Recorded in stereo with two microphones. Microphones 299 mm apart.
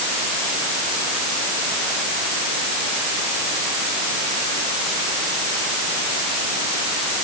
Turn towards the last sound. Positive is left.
No sound to turn to.